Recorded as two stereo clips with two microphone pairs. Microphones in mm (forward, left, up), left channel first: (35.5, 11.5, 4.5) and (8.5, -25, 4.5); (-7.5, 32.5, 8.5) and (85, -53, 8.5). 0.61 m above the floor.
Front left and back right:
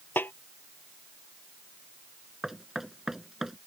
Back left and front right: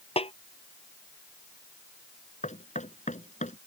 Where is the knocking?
150° left.